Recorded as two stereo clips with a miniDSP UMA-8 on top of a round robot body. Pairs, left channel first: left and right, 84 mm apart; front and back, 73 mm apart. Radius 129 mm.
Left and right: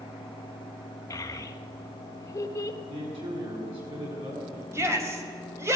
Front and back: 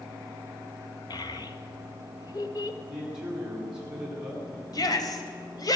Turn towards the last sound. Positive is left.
turn(degrees=-30)